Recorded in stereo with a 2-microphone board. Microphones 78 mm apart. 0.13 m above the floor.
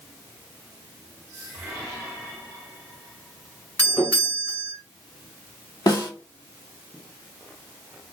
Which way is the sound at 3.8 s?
20° left (ahead or behind).